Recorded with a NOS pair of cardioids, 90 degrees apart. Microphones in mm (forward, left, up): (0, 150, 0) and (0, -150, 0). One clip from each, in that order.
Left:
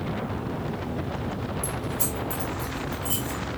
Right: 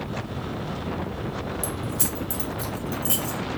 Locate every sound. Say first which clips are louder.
1.6 s keys jangling: even; 40° right, 2.5 m; by 3.4 s 75° right, 3.5 m